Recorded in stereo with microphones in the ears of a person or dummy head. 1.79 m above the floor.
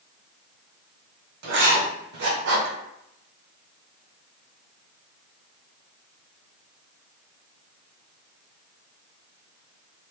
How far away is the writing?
About 0.8 m.